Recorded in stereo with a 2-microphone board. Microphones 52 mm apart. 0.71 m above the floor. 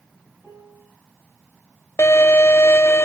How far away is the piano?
About 8 m.